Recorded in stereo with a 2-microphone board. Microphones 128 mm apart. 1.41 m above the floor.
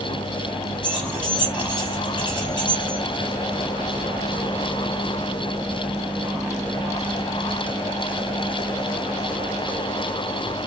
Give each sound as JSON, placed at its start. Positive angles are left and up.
{"t": 0.8, "sound": "keys jangling", "side_deg": 35, "distance_m": 1.1}